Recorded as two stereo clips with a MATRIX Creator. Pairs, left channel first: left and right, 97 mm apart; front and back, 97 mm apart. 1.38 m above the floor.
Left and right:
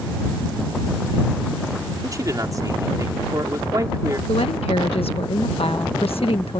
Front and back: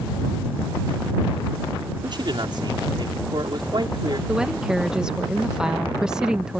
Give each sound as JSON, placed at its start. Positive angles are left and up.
{"t": 2.0, "sound": "a man speaking", "azimuth_deg": -140}
{"t": 4.3, "sound": "a woman speaking", "azimuth_deg": 100}